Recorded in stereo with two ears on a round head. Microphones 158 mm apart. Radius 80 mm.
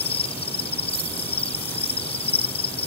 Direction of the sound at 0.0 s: 35° left (ahead or behind).